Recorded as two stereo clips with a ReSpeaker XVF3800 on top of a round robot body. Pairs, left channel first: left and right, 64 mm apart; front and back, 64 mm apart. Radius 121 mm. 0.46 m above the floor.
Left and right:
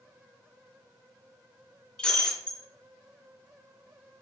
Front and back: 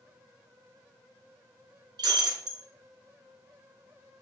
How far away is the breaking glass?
About 4.5 m.